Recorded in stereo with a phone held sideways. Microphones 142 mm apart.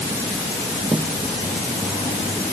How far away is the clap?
I don't hear a clap.